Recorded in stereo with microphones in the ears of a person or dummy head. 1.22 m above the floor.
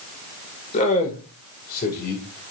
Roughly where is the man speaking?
Left.